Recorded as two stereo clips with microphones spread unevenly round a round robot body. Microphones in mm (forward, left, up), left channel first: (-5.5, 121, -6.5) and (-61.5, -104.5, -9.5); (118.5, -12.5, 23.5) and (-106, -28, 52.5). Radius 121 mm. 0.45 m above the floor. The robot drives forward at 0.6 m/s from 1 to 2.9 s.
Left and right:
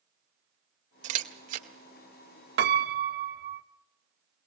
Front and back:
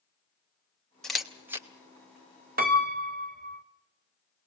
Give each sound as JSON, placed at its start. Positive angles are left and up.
{"t": 1.0, "sound": "a camera shutter", "azimuth_deg": -70, "distance_m": 1.6}
{"t": 2.6, "sound": "a piano", "azimuth_deg": -130, "distance_m": 1.1}